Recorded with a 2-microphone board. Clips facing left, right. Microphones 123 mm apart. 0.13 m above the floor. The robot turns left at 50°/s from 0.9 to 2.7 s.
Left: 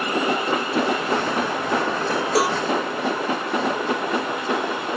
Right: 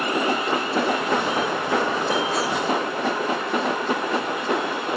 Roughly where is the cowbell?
Left.